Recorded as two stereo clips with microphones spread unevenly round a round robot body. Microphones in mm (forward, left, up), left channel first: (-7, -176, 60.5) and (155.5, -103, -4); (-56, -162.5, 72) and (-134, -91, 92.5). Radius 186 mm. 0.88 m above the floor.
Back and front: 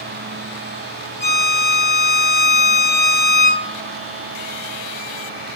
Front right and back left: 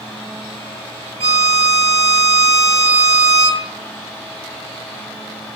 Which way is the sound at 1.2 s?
160° left.